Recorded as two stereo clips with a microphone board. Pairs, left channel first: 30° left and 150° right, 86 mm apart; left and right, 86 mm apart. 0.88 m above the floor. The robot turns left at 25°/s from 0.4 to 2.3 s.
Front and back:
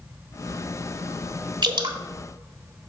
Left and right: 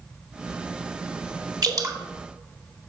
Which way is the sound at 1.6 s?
125° right.